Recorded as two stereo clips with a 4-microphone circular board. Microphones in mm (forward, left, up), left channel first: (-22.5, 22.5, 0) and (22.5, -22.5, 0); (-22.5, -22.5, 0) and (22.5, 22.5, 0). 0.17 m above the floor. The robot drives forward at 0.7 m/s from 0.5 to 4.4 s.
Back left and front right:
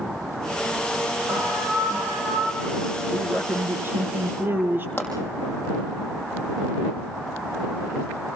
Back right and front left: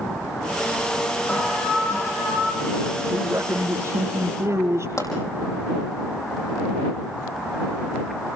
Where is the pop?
165° right, 5.5 m.